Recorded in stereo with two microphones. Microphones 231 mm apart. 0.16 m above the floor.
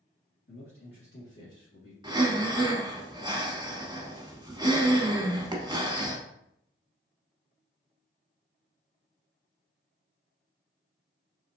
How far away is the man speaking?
About 1.8 m.